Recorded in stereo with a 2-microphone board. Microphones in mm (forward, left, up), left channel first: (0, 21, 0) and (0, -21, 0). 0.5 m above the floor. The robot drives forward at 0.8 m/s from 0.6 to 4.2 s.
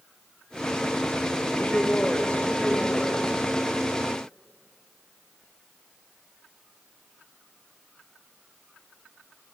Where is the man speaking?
40° left (ahead or behind), 1.1 m; by 3.4 s 20° left (ahead or behind), 2.5 m.